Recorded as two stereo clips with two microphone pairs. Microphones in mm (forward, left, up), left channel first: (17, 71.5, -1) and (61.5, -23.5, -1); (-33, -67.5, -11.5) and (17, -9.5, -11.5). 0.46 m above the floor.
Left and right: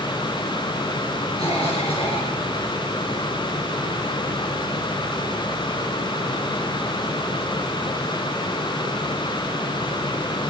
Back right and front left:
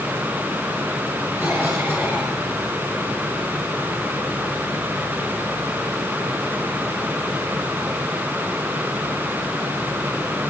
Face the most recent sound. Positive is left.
turn(degrees=120)